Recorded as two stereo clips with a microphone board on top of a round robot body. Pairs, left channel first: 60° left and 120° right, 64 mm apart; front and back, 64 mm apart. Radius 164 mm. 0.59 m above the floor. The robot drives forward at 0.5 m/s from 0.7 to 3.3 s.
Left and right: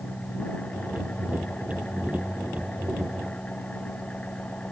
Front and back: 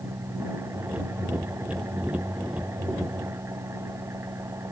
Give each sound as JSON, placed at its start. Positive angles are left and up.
{"t": 0.0, "sound": "an engine running", "azimuth_deg": 130}